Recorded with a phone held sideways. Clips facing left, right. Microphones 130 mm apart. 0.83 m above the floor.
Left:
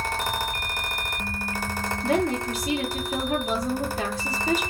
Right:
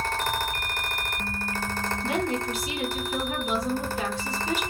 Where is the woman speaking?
40° left (ahead or behind), 2 m.